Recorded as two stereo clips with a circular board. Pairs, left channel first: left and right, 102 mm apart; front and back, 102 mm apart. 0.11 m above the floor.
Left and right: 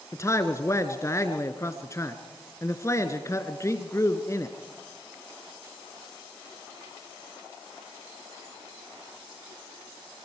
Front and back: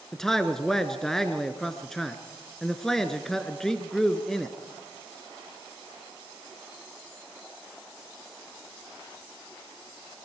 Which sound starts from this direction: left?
A man speaking, at 0.1 s.